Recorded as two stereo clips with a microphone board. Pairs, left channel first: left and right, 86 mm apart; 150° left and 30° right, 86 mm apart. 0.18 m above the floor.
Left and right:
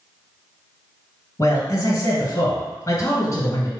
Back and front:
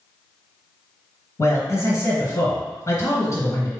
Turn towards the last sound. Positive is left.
turn(degrees=125)